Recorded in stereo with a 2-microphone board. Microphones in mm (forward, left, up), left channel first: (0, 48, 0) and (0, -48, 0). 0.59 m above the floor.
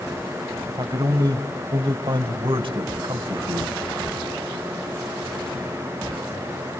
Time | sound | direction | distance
0.7 | a man speaking | 45° right (ahead or behind) | 3.5 m